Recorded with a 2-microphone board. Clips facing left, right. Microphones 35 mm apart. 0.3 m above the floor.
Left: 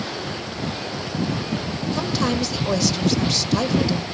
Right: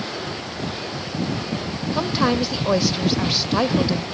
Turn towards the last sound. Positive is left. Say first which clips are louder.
# right 3 dB
turn(degrees=-20)  # may be behind; listen again after turning